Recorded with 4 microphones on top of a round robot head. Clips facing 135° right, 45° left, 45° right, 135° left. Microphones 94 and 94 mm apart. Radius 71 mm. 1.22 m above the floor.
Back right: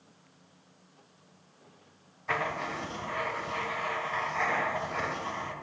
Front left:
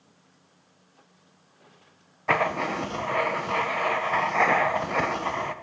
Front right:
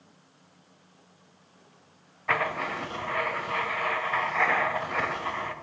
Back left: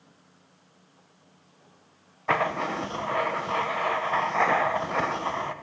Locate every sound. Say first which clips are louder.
2.3 s writing: front left 8 dB, back left 3 dB; 75° left, 0.6 m